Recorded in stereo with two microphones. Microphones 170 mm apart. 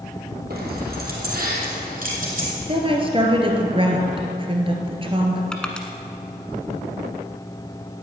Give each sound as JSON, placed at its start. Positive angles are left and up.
{"t": 0.5, "sound": "keys jangling", "side_deg": -65, "distance_m": 3.0}
{"t": 2.7, "sound": "a woman speaking", "side_deg": -30, "distance_m": 1.9}
{"t": 5.5, "sound": "crushing", "side_deg": 5, "distance_m": 1.2}